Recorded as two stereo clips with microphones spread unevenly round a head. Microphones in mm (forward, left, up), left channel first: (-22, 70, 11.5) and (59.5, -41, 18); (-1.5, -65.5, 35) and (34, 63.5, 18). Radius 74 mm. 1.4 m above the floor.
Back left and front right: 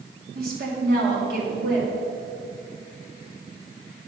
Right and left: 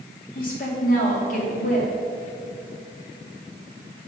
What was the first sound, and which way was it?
A woman speaking, 85° right.